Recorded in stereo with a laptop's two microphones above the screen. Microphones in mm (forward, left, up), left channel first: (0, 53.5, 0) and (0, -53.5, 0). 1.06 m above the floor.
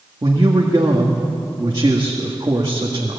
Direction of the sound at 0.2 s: 45° right (ahead or behind).